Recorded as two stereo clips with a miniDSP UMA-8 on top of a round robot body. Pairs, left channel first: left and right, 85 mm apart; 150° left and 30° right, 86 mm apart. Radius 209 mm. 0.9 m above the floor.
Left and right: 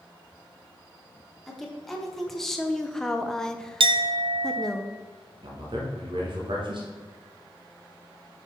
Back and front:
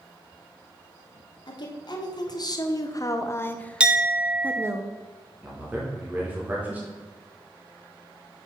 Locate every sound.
1.5 s a woman speaking: 175° left, 1.7 m; by 4.8 s 5° left, 0.9 m
3.8 s a clink: 110° right, 0.6 m
5.4 s a man speaking: 100° right, 1.9 m